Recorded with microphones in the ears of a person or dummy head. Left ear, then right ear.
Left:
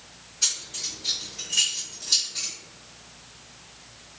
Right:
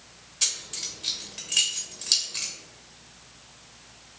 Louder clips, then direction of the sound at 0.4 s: Left 2 dB; 35° right (ahead or behind).